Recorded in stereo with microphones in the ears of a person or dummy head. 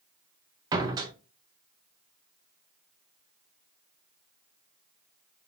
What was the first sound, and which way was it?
A door slam, 15° right (ahead or behind).